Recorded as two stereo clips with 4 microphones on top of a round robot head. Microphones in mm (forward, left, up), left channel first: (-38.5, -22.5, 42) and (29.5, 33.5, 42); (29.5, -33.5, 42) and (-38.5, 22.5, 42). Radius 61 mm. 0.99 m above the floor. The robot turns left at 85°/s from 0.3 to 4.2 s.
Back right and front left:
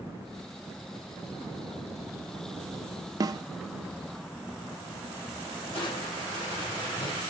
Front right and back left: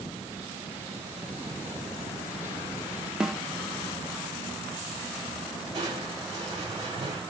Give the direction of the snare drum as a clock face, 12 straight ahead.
10 o'clock.